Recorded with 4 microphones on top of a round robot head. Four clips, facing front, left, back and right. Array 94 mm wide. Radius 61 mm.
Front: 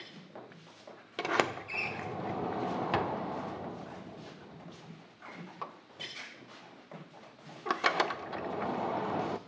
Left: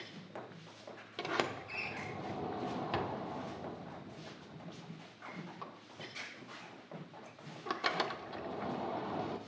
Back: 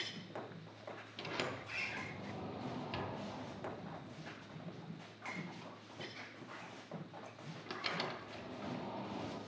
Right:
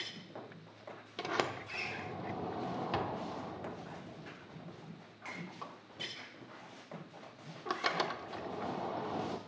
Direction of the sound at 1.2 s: 5° right.